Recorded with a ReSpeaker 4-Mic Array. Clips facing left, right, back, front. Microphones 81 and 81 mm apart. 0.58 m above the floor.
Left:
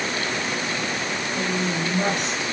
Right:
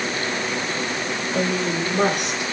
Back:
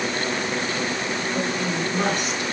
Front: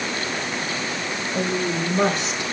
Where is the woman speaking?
65° right, 8.5 m.